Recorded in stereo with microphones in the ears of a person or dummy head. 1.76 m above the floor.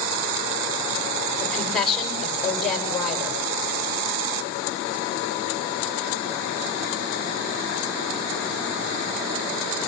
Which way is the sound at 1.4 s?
Centre (ahead or behind).